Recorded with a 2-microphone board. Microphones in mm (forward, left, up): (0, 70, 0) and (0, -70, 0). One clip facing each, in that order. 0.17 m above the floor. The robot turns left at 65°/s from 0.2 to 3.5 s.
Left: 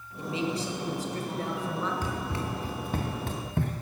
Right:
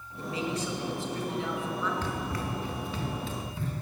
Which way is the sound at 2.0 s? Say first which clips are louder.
Left 1 dB; 10° left (ahead or behind).